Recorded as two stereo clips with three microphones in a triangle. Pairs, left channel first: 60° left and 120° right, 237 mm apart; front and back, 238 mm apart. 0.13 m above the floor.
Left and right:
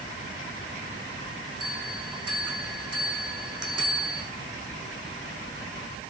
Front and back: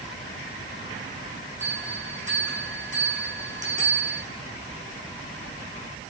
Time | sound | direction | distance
1.6 | a bell | 120° right | 2 m